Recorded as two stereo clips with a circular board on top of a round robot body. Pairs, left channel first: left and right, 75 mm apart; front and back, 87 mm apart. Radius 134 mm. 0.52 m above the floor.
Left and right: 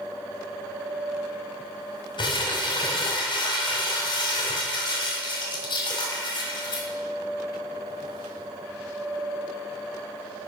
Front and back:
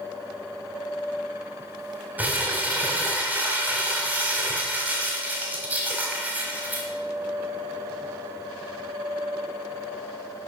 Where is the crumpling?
105° left, 1.6 m.